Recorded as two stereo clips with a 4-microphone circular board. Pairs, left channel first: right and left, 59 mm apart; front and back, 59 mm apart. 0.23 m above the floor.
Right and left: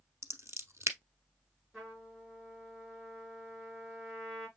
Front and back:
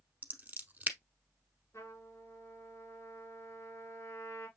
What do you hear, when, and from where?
0.2 s scissors: 120° left, 0.8 m
1.7 s a trumpet: 5° left, 3 m